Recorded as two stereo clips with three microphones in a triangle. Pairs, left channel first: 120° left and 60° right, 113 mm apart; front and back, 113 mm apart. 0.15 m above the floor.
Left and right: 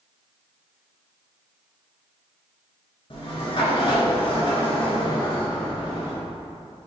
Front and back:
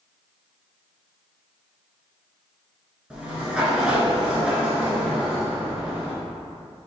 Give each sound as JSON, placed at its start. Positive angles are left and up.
{"t": 3.1, "sound": "a sliding door", "azimuth_deg": 100, "distance_m": 1.1}